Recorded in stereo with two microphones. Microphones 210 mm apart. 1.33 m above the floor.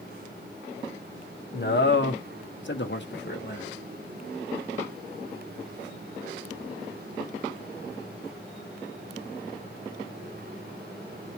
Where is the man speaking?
55° left (ahead or behind), 0.8 m.